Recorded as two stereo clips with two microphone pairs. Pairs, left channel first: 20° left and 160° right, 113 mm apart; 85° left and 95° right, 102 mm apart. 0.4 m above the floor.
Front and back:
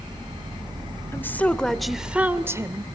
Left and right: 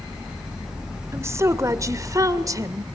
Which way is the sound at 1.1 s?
40° right.